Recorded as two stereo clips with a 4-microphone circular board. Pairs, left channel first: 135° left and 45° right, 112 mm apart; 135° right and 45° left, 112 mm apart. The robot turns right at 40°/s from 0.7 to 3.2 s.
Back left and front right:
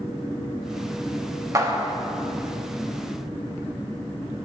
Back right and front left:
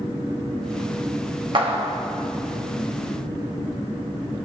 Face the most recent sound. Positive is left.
turn(degrees=75)